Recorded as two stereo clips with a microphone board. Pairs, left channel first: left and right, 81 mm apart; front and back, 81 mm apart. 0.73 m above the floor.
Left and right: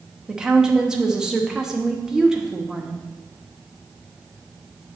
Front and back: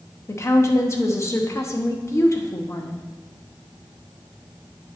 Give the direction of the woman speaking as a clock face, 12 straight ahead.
12 o'clock.